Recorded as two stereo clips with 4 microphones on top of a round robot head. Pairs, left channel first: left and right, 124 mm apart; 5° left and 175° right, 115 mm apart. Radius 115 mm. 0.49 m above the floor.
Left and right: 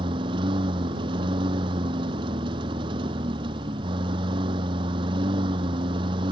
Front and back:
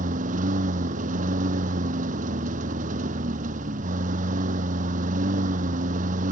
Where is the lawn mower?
150° right.